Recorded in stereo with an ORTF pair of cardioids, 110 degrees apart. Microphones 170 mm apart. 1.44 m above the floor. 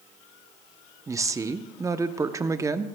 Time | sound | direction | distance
1.1 | a woman speaking | 20° right | 0.8 m